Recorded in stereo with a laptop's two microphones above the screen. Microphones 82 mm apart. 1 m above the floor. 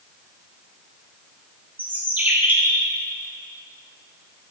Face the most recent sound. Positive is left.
turn(degrees=-20)  # may be behind; listen again after turning